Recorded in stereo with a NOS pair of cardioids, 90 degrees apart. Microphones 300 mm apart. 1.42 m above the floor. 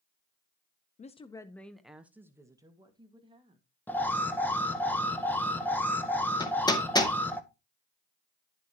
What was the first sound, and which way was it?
A woman speaking, 25° left.